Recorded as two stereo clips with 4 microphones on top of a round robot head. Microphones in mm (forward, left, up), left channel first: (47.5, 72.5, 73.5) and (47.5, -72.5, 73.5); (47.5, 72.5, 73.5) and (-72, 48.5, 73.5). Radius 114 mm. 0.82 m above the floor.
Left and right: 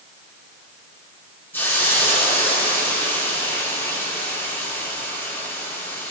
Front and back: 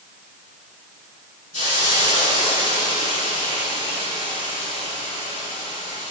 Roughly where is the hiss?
Ahead.